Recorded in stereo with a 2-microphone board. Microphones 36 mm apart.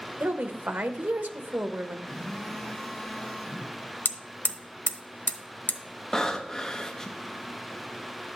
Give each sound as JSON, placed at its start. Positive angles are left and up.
{"t": 0.2, "sound": "a woman speaking", "side_deg": -65, "distance_m": 0.8}
{"t": 2.1, "sound": "a phone buzzing", "side_deg": 0, "distance_m": 3.0}
{"t": 4.0, "sound": "hammering", "side_deg": 70, "distance_m": 0.7}
{"t": 6.1, "sound": "breathing", "side_deg": 15, "distance_m": 0.8}